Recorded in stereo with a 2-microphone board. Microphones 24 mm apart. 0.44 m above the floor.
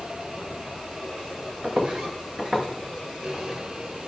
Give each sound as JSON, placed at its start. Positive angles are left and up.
{"t": 1.6, "sound": "footsteps", "side_deg": -45, "distance_m": 2.0}